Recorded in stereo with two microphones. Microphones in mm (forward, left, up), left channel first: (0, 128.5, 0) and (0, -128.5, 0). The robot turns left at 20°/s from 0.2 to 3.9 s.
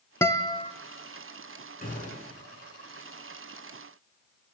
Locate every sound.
0.2 s a guitar: 10° left (ahead or behind), 0.7 m; by 0.7 s 20° left (ahead or behind), 0.7 m
1.8 s a gunshot: 35° left (ahead or behind), 9 m; by 2.3 s 25° left (ahead or behind), 9 m